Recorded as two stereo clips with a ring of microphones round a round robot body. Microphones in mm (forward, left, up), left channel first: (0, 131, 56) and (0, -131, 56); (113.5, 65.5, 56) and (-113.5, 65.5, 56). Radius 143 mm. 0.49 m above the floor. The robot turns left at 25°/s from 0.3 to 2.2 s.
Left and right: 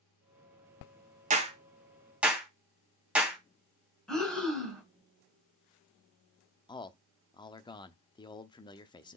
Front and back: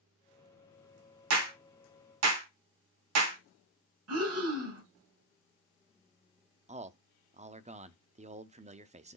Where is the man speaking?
150° left, 0.7 m.